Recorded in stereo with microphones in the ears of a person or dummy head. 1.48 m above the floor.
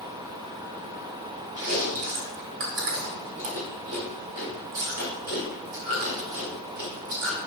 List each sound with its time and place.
1.6 s chewing: 55° right (ahead or behind), 1.9 m